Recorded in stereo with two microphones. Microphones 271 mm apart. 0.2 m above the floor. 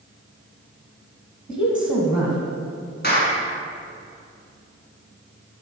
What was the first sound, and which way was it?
A woman speaking, 20° left (ahead or behind).